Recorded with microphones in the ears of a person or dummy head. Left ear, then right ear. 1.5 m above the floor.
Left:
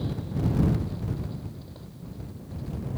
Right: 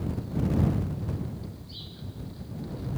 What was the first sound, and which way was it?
Only background noise.